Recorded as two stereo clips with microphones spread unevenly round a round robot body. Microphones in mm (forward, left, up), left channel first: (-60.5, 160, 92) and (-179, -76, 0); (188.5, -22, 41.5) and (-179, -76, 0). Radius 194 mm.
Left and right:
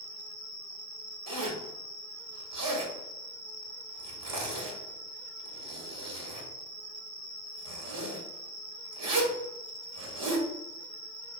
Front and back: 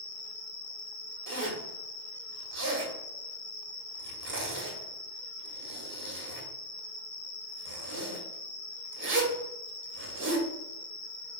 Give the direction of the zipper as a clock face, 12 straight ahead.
4 o'clock.